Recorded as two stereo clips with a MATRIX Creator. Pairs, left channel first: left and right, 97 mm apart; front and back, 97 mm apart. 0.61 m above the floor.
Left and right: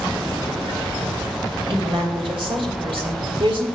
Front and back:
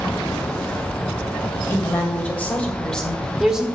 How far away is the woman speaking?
About 2.5 m.